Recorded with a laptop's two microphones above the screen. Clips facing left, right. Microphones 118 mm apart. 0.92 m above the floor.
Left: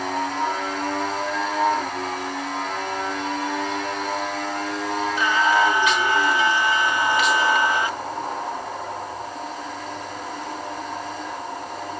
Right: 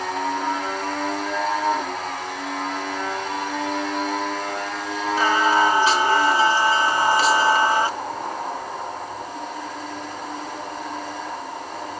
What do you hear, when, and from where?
5.2 s singing: 35° right (ahead or behind), 1.3 m